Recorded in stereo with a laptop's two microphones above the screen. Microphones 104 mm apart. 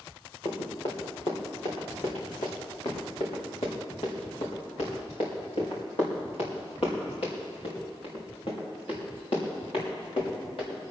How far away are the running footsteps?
About 4 m.